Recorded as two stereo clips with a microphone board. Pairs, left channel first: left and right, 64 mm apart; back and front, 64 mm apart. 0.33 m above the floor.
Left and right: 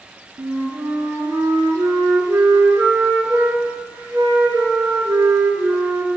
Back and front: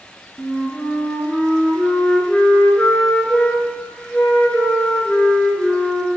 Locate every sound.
0.4 s a flute: 105° right, 0.7 m